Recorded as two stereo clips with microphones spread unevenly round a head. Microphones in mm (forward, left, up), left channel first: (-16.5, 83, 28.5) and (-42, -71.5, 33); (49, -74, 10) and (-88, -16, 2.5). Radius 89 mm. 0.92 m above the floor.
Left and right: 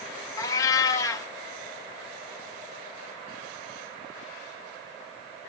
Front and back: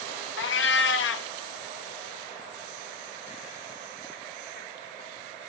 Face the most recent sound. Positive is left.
turn(degrees=5)